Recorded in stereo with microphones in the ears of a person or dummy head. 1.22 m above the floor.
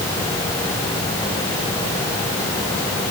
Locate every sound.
Only background noise.